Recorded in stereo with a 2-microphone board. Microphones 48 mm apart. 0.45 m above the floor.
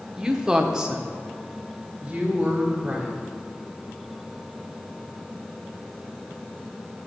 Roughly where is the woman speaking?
Centre.